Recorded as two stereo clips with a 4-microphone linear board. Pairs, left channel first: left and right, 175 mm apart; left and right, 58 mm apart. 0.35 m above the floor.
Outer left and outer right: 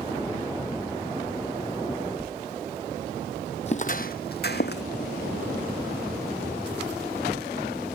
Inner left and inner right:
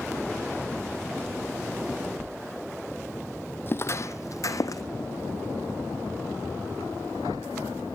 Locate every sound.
3.7 s footsteps: 40° left (ahead or behind), 0.6 m; by 4.8 s 75° left (ahead or behind), 1.0 m